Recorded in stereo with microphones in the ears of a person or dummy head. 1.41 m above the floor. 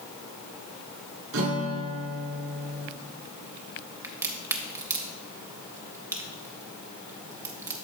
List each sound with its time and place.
1.3 s a guitar: 75° right (ahead or behind), 2 m
4.0 s a crack: 15° right (ahead or behind), 0.6 m